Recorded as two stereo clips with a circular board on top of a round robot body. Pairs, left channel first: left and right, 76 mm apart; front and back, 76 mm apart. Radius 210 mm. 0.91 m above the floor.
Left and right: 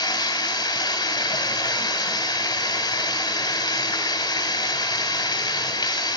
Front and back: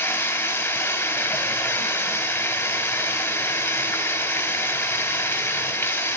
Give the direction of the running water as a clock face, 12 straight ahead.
10 o'clock.